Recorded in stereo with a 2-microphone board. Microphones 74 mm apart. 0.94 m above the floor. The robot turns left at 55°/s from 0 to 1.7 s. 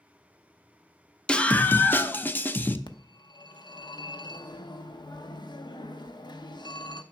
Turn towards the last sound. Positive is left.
turn(degrees=75)  # may be behind; listen again after turning